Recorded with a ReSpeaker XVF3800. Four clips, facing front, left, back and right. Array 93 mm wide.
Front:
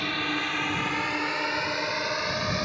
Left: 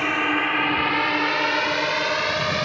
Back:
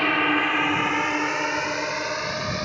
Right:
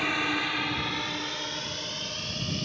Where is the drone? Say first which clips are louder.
Left 6 dB, back 8 dB; 150° left; by 2.7 s 90° left.